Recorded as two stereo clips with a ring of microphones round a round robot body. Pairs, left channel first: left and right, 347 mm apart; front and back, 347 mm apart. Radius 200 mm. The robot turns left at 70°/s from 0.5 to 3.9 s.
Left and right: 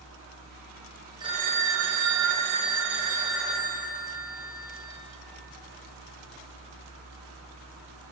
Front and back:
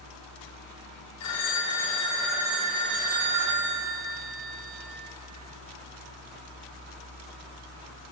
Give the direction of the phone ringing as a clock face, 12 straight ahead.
12 o'clock.